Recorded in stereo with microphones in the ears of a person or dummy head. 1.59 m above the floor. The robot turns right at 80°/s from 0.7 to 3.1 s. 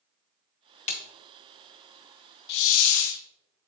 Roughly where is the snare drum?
Left.